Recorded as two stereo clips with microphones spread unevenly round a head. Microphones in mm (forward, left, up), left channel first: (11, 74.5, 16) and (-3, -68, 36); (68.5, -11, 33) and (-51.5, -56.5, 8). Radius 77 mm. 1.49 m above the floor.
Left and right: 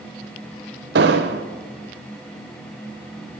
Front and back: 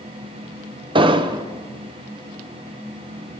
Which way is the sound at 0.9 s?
105° right.